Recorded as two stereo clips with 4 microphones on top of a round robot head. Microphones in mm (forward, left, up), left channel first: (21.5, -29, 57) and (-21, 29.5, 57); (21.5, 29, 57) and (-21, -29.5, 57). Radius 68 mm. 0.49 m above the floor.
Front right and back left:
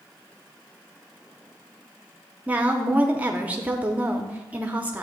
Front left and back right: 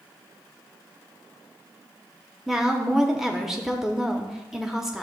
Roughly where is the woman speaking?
Behind left.